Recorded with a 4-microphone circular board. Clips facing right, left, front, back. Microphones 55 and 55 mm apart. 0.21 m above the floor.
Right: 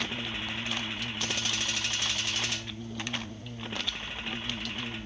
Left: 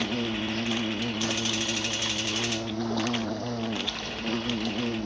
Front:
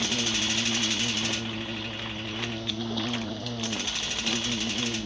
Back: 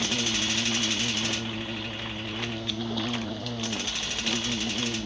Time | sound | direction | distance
0.0 | an insect | 95° left | ?